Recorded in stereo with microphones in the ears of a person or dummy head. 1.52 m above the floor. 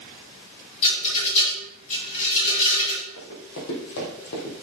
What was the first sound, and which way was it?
A rattle, 35° left (ahead or behind).